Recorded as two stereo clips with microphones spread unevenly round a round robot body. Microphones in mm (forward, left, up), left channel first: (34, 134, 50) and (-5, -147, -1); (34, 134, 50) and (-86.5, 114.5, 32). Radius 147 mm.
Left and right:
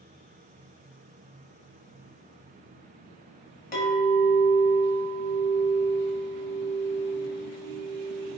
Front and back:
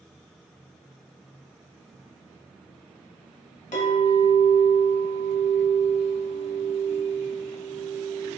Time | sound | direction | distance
3.7 | a clink | 20° left | 1.5 m